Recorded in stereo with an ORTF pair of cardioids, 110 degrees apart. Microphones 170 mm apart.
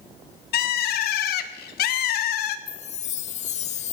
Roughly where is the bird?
Left.